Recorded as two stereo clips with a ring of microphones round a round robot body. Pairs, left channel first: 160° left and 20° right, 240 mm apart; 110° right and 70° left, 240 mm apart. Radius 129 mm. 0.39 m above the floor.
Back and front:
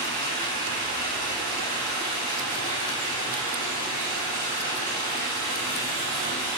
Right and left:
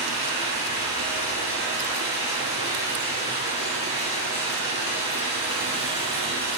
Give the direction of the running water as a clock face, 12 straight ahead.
4 o'clock.